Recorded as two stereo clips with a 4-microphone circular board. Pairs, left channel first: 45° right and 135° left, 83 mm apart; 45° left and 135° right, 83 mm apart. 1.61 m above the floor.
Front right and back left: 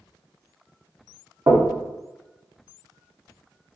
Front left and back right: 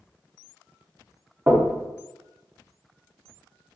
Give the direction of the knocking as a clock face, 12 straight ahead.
6 o'clock.